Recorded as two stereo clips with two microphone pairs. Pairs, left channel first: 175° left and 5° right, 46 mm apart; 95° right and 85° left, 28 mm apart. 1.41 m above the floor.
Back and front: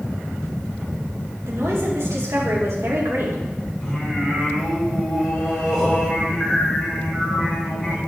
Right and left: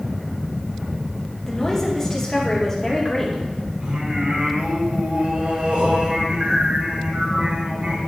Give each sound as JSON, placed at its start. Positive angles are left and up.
{"t": 1.5, "sound": "a woman speaking", "azimuth_deg": -20, "distance_m": 2.0}
{"t": 3.8, "sound": "singing", "azimuth_deg": 100, "distance_m": 2.5}